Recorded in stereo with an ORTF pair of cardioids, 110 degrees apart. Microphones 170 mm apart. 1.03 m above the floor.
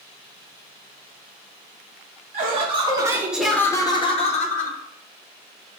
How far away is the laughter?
About 0.9 m.